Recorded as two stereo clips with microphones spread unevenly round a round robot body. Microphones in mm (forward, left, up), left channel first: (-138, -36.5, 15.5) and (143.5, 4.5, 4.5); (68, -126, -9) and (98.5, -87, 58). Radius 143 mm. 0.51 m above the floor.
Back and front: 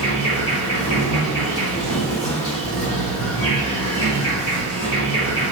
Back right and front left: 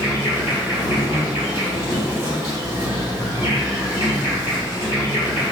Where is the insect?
135° right, 1.7 m.